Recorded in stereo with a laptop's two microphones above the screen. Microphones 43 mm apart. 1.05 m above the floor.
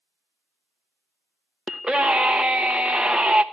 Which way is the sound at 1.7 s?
20° right (ahead or behind).